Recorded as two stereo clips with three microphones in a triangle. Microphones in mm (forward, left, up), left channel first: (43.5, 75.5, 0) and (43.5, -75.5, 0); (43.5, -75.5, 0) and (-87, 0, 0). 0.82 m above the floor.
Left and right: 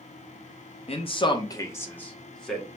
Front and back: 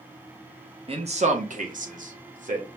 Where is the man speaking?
115° left, 0.7 m; by 2.7 s straight behind, 1.3 m.